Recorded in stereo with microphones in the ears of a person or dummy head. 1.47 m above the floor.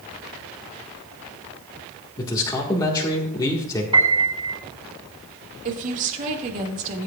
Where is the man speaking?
20° left (ahead or behind), 1.6 m.